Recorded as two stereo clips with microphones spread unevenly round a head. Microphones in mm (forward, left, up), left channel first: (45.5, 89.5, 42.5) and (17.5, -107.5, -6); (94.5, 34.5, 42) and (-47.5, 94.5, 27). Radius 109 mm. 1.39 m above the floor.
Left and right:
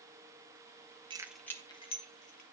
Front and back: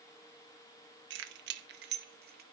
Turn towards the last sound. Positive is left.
turn(degrees=135)